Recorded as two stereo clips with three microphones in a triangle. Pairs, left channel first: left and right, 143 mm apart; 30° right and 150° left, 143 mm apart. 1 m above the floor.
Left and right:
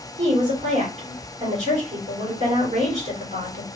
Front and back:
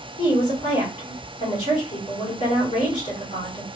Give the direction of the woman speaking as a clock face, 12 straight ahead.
2 o'clock.